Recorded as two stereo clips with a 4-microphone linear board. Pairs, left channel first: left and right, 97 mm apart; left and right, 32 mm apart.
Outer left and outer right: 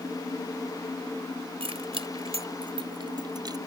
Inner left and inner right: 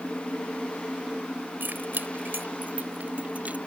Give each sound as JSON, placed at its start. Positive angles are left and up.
{"t": 1.6, "sound": "keys jangling", "side_deg": -90}